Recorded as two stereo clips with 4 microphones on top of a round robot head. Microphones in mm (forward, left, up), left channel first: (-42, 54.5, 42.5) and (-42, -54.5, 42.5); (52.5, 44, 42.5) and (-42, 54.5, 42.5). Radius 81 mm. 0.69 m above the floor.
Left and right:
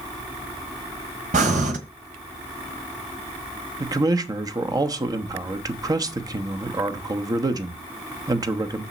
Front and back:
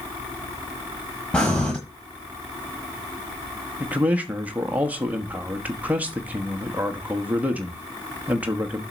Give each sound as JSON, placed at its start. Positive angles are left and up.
{"t": 1.3, "sound": "breathing", "azimuth_deg": -90, "distance_m": 1.4}
{"t": 3.8, "sound": "a man speaking", "azimuth_deg": -120, "distance_m": 1.1}